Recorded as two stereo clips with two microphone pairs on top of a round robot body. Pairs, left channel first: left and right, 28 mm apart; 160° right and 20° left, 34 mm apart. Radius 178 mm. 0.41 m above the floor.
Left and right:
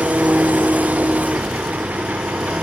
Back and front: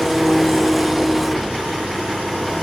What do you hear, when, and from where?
0.0 s an engine running: 70° right, 1.5 m